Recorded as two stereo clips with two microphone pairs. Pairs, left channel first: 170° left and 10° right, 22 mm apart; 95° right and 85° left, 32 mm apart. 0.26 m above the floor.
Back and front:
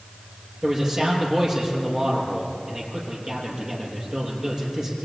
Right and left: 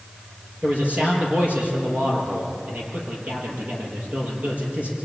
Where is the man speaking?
45° left, 7 m.